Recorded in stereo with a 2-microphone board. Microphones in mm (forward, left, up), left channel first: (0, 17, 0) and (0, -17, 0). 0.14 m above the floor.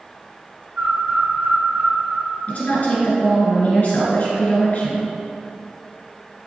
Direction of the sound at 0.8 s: 45° right (ahead or behind).